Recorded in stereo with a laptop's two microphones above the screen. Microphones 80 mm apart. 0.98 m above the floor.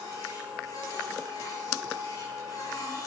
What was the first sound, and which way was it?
A machine running, 50° left (ahead or behind).